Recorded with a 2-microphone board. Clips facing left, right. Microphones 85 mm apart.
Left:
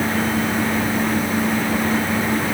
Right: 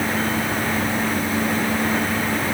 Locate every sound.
Only background noise.